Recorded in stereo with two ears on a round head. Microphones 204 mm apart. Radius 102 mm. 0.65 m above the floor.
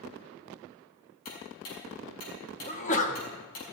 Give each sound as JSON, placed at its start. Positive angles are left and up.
{"t": 1.2, "sound": "ticking", "side_deg": 70, "distance_m": 5.5}
{"t": 2.7, "sound": "a sneeze", "side_deg": 35, "distance_m": 1.3}